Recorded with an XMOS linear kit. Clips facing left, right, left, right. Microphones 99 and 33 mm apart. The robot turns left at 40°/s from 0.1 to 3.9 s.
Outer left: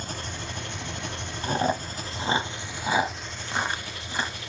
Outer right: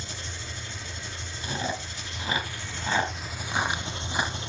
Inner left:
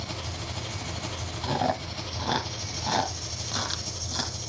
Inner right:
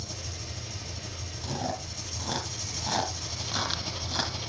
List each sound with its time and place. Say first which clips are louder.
0.0 s an engine running: outer left 5 dB, inner left 5 dB; 120° left, 0.7 m; by 4.5 s 30° right, 0.7 m
1.4 s chewing: outer left 7 dB, inner left 7 dB; 40° left (ahead or behind), 1.1 m; by 4.4 s 10° right (ahead or behind), 1.1 m